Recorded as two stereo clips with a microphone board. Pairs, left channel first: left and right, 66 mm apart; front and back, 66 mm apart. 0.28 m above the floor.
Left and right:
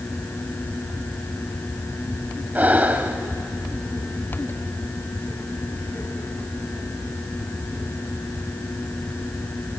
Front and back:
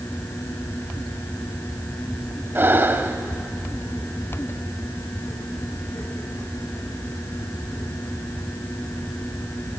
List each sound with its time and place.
2.5 s breathing: 140° right, 1.0 m